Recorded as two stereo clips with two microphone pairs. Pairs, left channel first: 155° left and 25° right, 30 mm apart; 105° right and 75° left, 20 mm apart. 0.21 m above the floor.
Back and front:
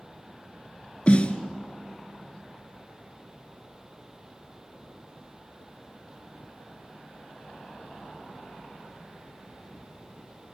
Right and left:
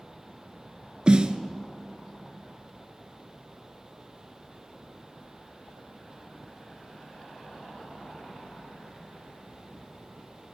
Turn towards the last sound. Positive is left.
turn(degrees=110)